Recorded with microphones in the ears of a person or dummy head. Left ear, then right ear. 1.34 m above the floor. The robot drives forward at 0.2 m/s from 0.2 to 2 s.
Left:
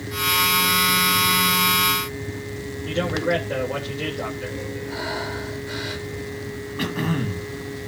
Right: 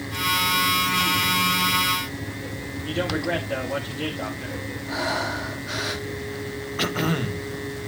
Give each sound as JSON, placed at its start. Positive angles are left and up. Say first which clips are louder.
{"t": 2.9, "sound": "a man speaking", "louder": "left 3 dB", "side_deg": -15, "distance_m": 3.0}
{"t": 4.9, "sound": "breathing", "louder": "right 4 dB", "side_deg": -70, "distance_m": 1.4}
{"t": 6.8, "sound": "throat clearing", "louder": "right 2 dB", "side_deg": -40, "distance_m": 1.4}